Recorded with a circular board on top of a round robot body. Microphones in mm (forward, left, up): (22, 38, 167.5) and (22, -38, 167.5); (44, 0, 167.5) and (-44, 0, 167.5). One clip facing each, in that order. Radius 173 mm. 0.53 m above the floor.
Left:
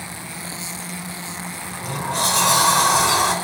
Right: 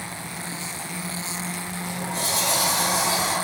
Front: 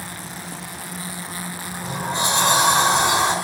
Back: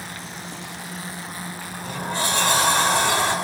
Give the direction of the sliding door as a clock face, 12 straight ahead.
10 o'clock.